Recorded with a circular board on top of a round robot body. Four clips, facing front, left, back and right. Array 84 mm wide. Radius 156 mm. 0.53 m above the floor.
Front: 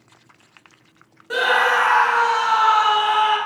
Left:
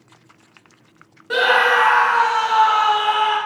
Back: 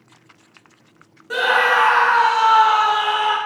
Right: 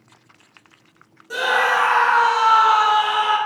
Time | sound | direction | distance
1.3 | a scream | 85° left | 0.7 m